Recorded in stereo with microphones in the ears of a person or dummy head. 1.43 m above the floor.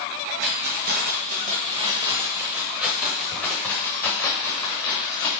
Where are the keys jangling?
65° right (ahead or behind), 1.3 m; by 5.3 s 20° left (ahead or behind), 2.5 m.